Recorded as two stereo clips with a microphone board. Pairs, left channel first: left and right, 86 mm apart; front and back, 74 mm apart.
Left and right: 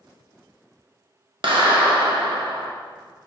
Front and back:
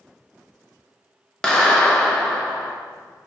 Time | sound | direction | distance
1.4 | a clap | 80° right | 1.0 m